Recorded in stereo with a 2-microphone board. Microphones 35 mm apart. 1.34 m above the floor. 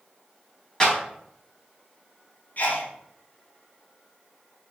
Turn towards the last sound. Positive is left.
turn(degrees=55)  # may be behind; listen again after turning